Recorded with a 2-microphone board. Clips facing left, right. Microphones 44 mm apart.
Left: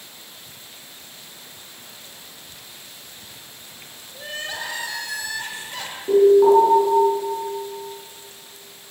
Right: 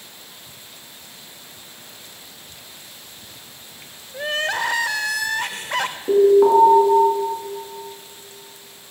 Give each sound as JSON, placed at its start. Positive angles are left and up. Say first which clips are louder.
{"t": 4.1, "sound": "crying", "louder": "right 8 dB", "side_deg": -65, "distance_m": 0.7}
{"t": 6.1, "sound": "an alarm", "louder": "even", "side_deg": -20, "distance_m": 6.0}